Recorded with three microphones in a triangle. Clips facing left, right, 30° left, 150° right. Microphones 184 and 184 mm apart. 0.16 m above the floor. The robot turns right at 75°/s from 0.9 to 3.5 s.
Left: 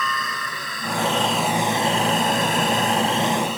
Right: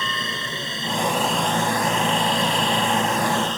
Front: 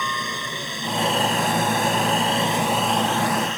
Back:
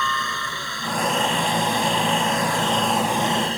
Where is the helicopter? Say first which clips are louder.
Left 1 dB, back 1 dB; 35° right; by 3.6 s 170° left.